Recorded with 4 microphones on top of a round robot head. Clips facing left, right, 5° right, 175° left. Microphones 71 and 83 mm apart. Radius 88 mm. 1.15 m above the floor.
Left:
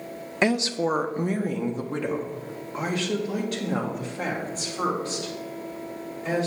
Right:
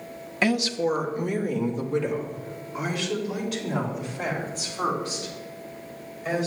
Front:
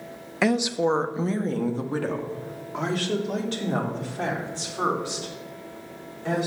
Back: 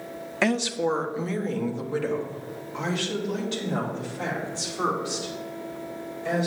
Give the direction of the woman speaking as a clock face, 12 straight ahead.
10 o'clock.